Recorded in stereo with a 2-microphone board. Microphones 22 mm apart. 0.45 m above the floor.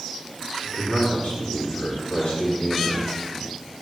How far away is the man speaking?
About 4.5 m.